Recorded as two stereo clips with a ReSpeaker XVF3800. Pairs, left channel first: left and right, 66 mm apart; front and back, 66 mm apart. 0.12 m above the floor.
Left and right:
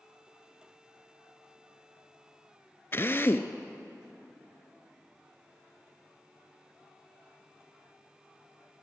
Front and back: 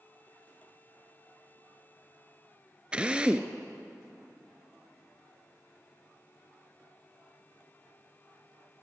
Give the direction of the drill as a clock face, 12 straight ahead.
8 o'clock.